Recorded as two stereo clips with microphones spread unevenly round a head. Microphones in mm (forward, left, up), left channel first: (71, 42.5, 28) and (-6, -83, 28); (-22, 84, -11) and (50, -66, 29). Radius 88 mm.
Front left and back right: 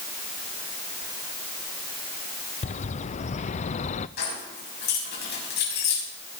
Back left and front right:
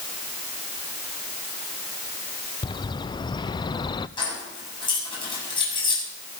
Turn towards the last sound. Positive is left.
turn(degrees=50)